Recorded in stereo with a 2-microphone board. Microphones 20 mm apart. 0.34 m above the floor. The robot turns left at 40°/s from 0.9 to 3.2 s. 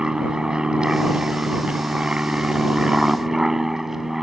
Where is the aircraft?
40° right (ahead or behind); by 4.2 s 20° right (ahead or behind).